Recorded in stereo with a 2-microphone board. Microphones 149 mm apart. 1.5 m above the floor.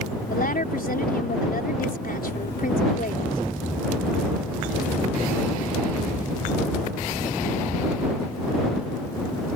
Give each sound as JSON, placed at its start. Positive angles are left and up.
{"t": 0.3, "sound": "a woman speaking", "side_deg": 80}